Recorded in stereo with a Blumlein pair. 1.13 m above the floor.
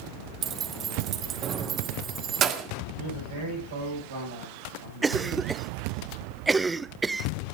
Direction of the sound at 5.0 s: 10° right.